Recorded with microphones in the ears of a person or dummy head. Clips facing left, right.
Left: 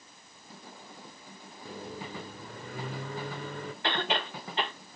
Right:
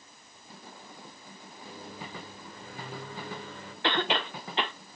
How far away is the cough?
About 0.5 m.